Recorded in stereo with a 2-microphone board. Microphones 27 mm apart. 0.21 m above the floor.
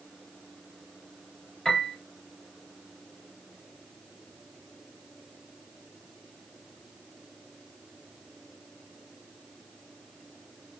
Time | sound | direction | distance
1.6 | a piano | 20° left (ahead or behind) | 3 m